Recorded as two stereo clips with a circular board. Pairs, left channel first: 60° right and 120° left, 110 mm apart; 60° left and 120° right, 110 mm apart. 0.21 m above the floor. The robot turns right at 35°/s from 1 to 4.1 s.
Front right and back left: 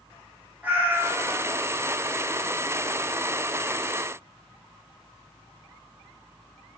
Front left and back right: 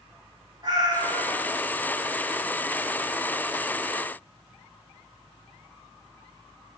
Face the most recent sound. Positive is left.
turn(degrees=-60)